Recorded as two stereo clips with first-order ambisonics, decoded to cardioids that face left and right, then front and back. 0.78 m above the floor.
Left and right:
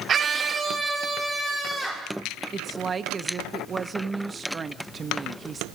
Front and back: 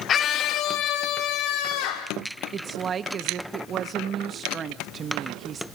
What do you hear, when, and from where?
0.1 s a scream: 45° right, 0.6 m; by 2.1 s 5° right, 2 m
2.5 s a woman speaking: 140° right, 0.7 m